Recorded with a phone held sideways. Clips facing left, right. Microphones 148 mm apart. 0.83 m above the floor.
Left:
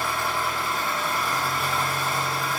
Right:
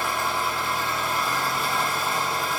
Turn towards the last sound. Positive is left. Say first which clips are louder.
# right 1 dB
turn(degrees=-20)  # may be behind; listen again after turning